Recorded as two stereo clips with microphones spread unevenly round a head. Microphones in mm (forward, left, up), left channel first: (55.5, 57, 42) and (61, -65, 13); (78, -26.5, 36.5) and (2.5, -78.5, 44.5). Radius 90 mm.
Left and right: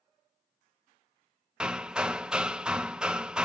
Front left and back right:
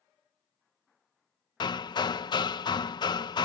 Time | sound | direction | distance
1.6 | hammering | 5° right | ?